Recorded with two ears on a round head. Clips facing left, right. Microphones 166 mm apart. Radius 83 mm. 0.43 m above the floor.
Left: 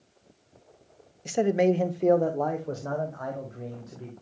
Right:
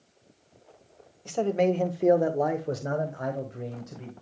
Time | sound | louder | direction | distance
1.2 | a man speaking | left 2 dB | 20° left (ahead or behind) | 0.8 m